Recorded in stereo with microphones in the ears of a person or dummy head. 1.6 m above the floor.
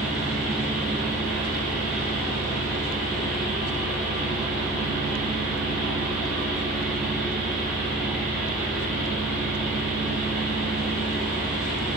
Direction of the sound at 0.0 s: 5° right (ahead or behind).